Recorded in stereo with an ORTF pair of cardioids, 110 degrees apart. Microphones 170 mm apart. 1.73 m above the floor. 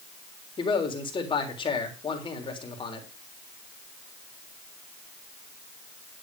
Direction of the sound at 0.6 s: 30° left.